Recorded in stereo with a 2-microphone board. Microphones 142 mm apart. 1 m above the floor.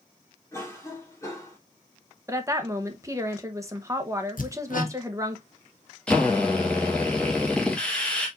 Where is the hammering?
75° left (ahead or behind), 1.1 m.